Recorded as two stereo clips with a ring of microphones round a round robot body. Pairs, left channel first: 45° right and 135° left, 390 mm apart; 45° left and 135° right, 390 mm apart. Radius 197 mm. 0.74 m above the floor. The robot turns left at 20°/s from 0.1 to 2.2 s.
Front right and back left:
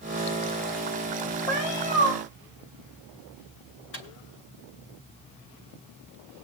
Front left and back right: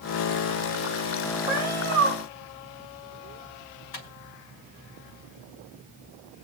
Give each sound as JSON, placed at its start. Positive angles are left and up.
{"t": 1.5, "sound": "a cat meowing", "azimuth_deg": -60, "distance_m": 4.0}
{"t": 3.9, "sound": "a microwave", "azimuth_deg": 15, "distance_m": 4.0}